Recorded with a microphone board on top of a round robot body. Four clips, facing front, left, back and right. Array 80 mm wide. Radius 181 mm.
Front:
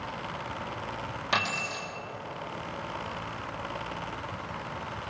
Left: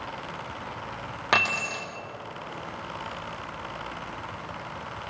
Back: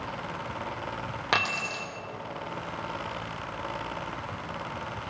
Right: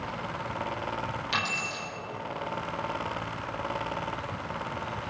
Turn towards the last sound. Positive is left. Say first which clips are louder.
# left 11 dB, back 2 dB
turn(degrees=125)